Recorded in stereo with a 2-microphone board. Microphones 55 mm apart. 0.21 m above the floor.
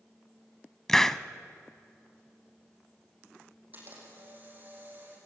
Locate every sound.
0.9 s a hiss: 10° left (ahead or behind), 0.6 m
3.7 s a camera shutter: 35° right (ahead or behind), 6.5 m